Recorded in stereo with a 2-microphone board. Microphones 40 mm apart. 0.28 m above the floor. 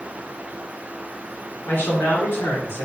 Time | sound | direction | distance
1.7 | a man speaking | 65° left (ahead or behind) | 3.5 m